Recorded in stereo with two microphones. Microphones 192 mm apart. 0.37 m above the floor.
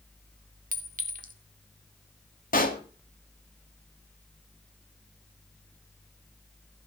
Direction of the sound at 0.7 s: 45° right (ahead or behind).